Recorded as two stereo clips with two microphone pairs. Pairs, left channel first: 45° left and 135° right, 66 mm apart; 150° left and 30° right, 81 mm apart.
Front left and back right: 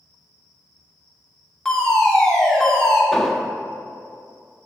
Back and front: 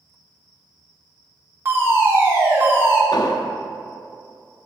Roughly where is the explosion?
Behind left.